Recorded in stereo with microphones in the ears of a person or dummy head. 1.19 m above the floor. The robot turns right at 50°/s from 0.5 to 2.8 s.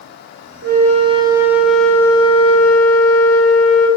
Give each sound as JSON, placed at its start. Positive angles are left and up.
{"t": 0.6, "sound": "a flute", "azimuth_deg": -55, "distance_m": 1.0}